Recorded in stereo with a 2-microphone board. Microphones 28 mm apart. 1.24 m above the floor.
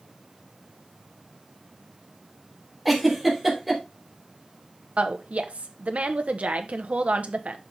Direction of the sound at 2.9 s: Centre (ahead or behind).